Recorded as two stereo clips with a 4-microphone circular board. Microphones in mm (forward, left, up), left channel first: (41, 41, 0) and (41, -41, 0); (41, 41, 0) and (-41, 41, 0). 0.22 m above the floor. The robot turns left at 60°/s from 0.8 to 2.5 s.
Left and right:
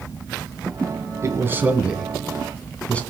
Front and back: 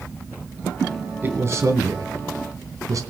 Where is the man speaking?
125° right, 2 m; by 3.0 s 160° left, 2 m.